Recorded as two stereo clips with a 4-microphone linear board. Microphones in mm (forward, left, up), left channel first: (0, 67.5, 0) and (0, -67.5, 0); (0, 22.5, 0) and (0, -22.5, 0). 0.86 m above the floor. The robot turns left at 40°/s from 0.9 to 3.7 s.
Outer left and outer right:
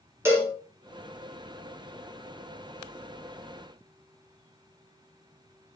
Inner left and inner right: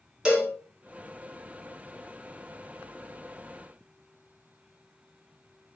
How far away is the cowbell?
About 0.9 m.